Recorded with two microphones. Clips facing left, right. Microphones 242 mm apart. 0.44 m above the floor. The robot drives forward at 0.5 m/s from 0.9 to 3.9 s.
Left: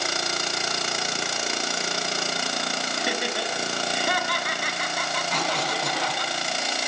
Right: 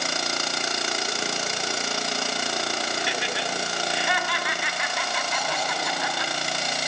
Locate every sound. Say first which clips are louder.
3.0 s laughter: left 2 dB; 50° left (ahead or behind), 2.5 m; by 6.3 s 45° left (ahead or behind), 3 m
5.3 s a cough: left 5 dB; 75° left (ahead or behind), 4.5 m